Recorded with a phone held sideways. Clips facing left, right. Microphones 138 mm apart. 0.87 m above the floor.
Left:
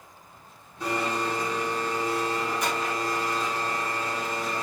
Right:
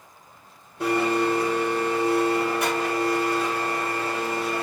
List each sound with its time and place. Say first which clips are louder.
0.8 s a blender: right 6 dB; 70° right (ahead or behind), 3.5 m